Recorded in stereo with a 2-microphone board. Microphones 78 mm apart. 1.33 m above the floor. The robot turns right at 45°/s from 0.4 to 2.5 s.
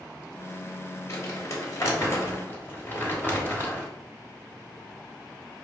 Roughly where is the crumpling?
Left.